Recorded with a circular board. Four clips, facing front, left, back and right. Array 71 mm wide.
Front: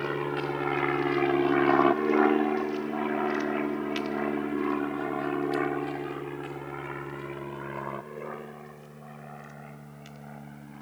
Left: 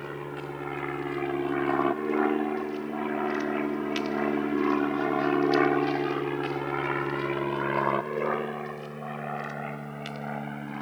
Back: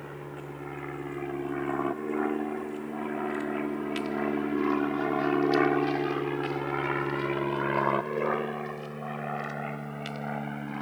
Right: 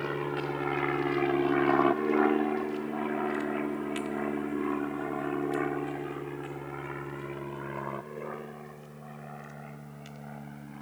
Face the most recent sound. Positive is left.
turn(degrees=135)